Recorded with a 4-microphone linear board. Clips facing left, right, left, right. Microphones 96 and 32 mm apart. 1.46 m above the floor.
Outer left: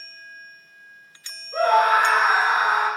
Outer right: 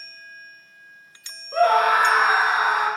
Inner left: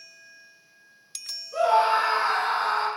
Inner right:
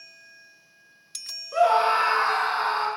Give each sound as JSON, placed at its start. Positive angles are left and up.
{"t": 1.5, "sound": "a scream", "side_deg": -80, "distance_m": 0.6}